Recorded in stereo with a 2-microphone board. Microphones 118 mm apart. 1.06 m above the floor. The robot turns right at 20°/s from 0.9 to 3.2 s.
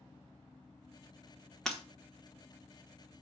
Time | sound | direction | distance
1.6 | breaking glass | 5° left (ahead or behind) | 0.9 m